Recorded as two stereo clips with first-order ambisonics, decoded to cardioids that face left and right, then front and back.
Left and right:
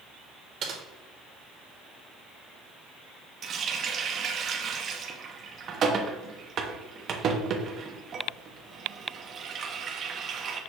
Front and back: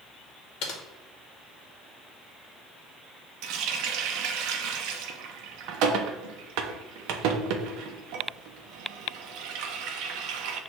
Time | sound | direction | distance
0.6 | typing on a keyboard | 35° right | 0.9 m
3.4 | a running tap | 150° right | 0.5 m